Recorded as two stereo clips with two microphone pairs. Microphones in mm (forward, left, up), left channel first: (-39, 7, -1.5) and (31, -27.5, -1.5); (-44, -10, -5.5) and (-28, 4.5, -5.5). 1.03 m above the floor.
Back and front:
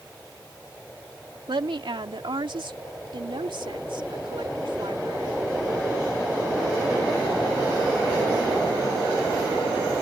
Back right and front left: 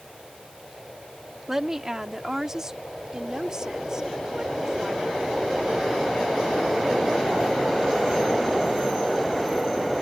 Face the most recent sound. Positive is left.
turn(degrees=-15)